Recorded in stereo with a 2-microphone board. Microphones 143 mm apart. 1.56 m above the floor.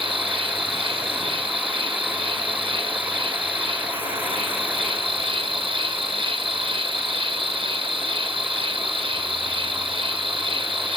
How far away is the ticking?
I don't hear ticking.